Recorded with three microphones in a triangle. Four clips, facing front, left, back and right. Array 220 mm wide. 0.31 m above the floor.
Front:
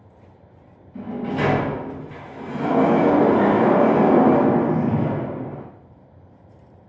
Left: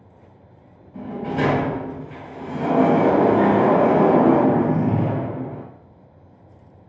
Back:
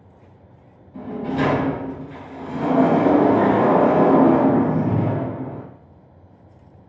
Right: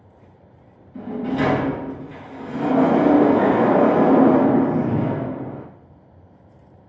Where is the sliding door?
120° left, 1.2 m.